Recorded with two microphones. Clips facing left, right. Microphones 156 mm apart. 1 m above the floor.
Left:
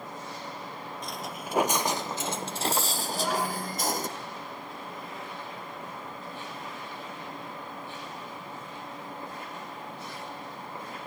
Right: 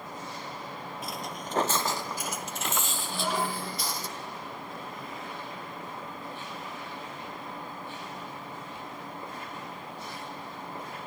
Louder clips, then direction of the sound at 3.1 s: Left 1 dB; 10° right (ahead or behind).